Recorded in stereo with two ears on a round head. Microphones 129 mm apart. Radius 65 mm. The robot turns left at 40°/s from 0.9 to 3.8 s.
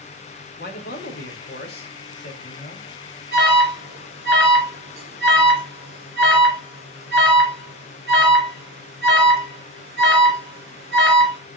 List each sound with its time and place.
0.6 s a man speaking: 110° left, 3 m; by 2.9 s 30° left, 3 m
3.3 s an alarm: 65° right (ahead or behind), 3.5 m; by 11.4 s 80° right, 3.5 m